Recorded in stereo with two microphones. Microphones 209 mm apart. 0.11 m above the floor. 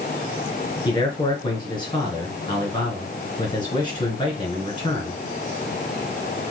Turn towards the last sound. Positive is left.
turn(degrees=20)  # may be behind; listen again after turning